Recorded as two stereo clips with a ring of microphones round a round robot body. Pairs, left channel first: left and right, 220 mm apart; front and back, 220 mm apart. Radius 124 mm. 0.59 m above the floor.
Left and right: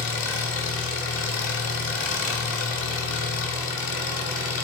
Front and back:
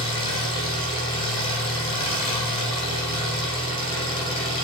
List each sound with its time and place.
0.0 s an engine running: 70° left, 1.5 m